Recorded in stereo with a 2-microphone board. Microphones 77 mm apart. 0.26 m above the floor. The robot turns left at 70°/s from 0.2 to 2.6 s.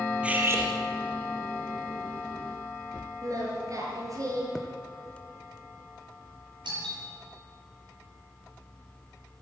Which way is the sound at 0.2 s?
15° right.